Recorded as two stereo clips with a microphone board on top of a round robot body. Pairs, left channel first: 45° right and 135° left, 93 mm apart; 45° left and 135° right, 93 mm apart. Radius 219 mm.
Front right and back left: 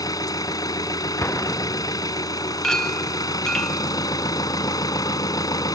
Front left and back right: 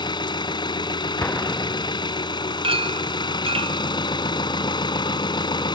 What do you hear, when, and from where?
0.0 s an engine running: 5° left
1.2 s an explosion: 5° right
2.6 s a clink: 130° right